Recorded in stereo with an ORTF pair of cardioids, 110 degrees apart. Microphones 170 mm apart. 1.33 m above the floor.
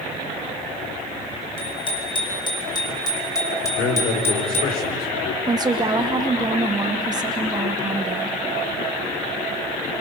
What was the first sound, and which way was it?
A bicycle bell, 30° left.